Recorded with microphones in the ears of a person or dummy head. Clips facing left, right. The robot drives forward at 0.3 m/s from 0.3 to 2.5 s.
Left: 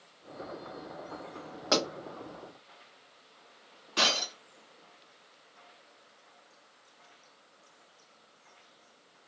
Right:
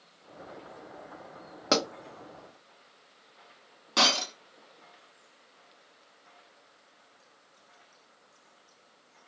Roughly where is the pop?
Right.